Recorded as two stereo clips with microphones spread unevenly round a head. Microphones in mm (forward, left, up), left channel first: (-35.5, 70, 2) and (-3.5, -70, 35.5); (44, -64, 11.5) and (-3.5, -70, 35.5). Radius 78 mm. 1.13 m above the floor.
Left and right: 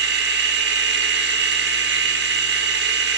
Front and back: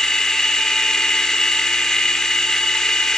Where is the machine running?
80° right, 2 m.